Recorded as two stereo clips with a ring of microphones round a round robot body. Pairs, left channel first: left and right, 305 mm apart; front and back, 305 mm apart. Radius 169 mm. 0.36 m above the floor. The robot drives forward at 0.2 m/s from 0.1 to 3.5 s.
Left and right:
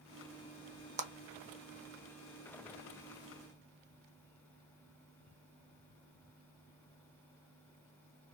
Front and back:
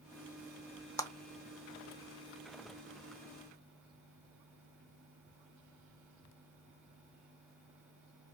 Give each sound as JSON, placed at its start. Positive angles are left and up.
{"t": 1.0, "sound": "a clap", "azimuth_deg": -65, "distance_m": 0.6}